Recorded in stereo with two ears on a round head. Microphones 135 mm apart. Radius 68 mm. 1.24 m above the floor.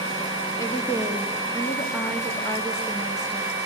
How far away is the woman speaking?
About 1.9 m.